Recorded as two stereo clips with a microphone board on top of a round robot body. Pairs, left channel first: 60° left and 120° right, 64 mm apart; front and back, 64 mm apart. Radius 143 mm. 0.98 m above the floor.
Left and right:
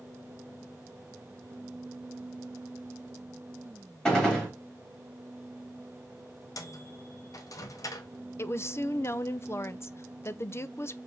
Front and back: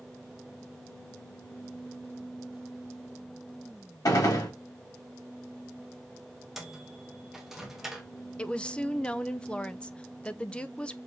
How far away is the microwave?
About 0.7 m.